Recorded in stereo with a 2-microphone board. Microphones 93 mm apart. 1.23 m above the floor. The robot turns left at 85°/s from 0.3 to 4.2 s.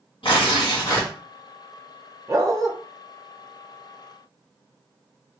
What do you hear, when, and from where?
0.2 s tearing paper: 85° left, 2 m; by 1.1 s 20° left, 2 m
2.3 s a dog barking: 60° right, 0.8 m; by 2.7 s 100° right, 0.8 m